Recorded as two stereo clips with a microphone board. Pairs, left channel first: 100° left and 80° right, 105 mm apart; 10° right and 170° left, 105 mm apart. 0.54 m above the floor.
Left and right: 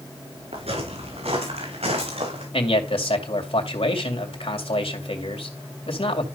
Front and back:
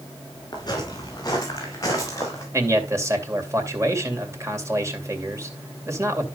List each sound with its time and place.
0.5 s footsteps: 60° right, 6 m; by 2.4 s 70° right, 5 m
2.5 s a man speaking: 110° left, 2.5 m